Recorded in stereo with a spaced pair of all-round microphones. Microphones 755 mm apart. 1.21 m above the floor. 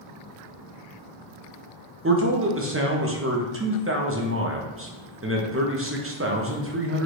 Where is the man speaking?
20° right (ahead or behind), 0.7 m.